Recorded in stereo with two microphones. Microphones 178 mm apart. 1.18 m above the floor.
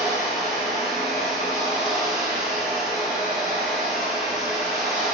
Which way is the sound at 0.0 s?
Centre (ahead or behind).